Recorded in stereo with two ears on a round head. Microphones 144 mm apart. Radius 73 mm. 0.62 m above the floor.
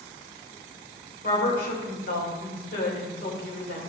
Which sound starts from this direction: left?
A woman speaking, at 1.2 s.